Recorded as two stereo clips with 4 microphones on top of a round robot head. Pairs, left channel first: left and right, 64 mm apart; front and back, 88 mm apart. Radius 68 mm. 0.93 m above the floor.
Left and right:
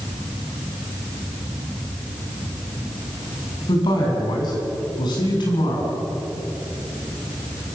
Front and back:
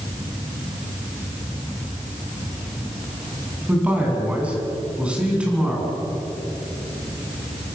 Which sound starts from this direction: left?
A man speaking, at 3.7 s.